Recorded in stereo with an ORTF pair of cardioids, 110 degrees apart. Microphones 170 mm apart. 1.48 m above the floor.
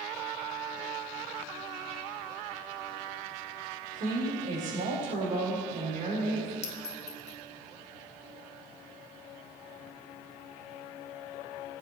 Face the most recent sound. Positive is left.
turn(degrees=40)